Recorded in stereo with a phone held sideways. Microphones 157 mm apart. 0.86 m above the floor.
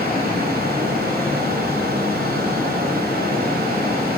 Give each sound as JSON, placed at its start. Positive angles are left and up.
{"t": 0.0, "sound": "a fan", "side_deg": -80, "distance_m": 7.0}